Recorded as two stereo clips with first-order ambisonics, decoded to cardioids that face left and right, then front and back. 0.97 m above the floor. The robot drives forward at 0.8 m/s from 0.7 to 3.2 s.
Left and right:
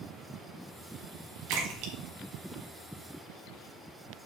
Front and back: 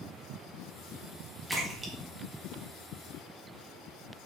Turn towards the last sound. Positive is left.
turn(degrees=-135)